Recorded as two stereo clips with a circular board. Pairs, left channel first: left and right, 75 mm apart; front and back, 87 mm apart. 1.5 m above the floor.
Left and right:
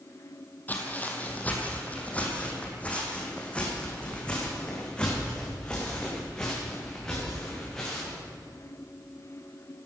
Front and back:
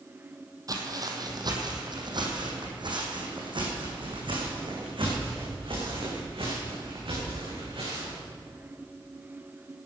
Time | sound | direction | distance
0.7 | footsteps | 150° left | 2.5 m